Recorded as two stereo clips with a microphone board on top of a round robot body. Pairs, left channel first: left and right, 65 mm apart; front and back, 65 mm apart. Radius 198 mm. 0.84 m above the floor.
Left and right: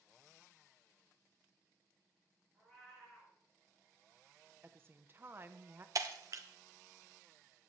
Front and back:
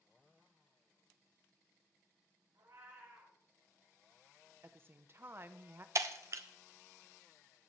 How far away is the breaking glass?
About 0.6 m.